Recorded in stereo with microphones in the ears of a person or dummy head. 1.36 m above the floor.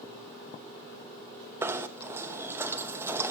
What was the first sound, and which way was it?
Knocking, 15° right (ahead or behind).